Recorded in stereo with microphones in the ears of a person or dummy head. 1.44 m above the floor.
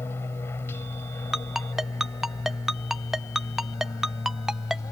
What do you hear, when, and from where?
0.0 s an aircraft: 15° left (ahead or behind)
1.3 s a ringtone: 5° right (ahead or behind)